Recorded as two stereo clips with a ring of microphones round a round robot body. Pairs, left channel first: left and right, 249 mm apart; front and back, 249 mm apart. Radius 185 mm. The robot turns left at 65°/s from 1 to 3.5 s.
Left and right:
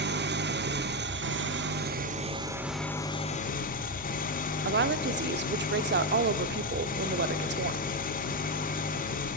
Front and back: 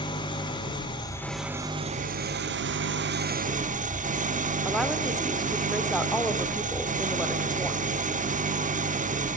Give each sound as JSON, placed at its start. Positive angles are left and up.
{"t": 0.0, "sound": "an engine running", "azimuth_deg": -65, "distance_m": 1.1}
{"t": 4.7, "sound": "a woman speaking", "azimuth_deg": -90, "distance_m": 0.9}